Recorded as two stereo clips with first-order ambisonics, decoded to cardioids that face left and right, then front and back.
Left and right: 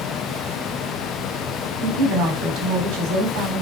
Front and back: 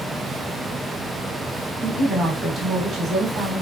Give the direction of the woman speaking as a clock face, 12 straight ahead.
3 o'clock.